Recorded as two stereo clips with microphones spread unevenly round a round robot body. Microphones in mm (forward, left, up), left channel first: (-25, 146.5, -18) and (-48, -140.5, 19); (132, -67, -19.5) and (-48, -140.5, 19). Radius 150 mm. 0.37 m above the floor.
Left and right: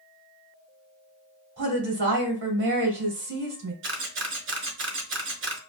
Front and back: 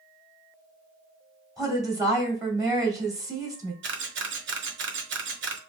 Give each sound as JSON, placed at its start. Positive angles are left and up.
{"t": 1.6, "sound": "a woman speaking", "azimuth_deg": -80, "distance_m": 1.9}
{"t": 3.8, "sound": "a camera shutter", "azimuth_deg": -140, "distance_m": 0.9}